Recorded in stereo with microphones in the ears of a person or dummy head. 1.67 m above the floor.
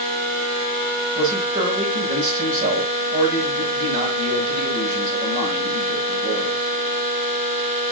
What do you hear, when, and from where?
1.1 s a man speaking: 55° right (ahead or behind), 6 m